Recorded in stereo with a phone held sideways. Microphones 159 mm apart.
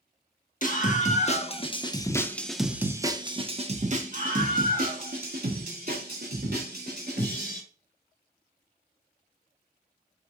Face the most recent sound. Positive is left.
turn(degrees=-80)